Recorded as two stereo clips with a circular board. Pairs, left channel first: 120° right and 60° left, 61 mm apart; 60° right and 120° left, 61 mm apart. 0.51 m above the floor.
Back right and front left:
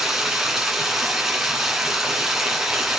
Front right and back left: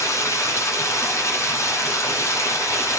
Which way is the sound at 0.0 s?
20° right.